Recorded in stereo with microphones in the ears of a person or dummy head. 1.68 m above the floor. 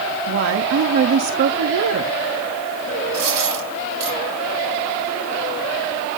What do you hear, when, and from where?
0.3 s a woman speaking: 70° right (ahead or behind), 0.8 m
3.1 s a dropped coin: 55° right (ahead or behind), 4 m